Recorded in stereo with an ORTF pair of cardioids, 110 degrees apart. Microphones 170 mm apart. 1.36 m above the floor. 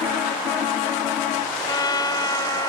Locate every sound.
1.6 s a trumpet: 25° left